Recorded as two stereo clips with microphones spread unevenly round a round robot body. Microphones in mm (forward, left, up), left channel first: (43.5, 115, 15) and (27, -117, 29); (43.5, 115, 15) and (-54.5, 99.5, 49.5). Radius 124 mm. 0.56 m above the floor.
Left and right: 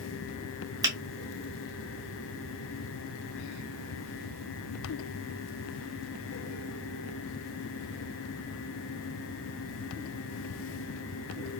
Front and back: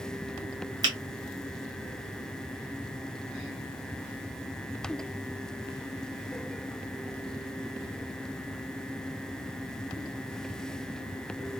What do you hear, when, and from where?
0.8 s a finger snap: 150° right, 1.0 m